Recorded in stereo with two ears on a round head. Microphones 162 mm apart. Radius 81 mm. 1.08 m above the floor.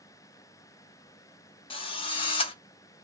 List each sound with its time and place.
1.7 s a drill: 30° left (ahead or behind), 0.6 m